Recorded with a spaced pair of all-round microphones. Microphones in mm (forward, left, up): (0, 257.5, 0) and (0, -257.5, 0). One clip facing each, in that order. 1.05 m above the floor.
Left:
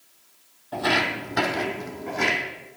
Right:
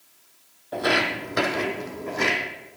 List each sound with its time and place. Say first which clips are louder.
0.7 s footsteps: right 1 dB; 20° left (ahead or behind), 1.6 m; by 2.4 s centre (ahead or behind), 2 m